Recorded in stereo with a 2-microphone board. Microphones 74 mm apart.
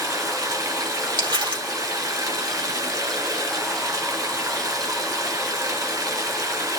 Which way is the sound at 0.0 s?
55° right (ahead or behind).